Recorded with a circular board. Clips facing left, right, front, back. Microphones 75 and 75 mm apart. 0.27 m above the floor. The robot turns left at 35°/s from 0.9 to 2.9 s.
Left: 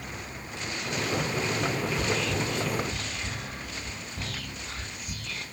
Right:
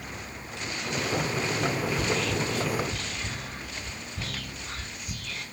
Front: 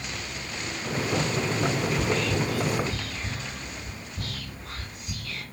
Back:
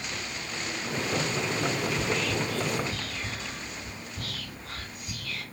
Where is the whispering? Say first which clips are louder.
Right 1 dB, front 3 dB; 120° right, 1.8 m; by 5.4 s 155° right, 1.8 m.